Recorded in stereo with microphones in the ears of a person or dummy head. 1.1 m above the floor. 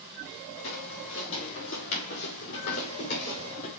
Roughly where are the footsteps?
Left.